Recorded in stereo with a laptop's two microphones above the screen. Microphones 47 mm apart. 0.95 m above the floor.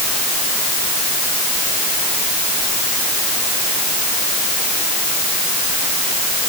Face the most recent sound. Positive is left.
No sound to turn to.